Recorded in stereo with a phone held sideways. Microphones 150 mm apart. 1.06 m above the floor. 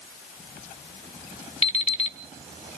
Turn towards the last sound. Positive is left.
turn(degrees=45)  # may be behind; listen again after turning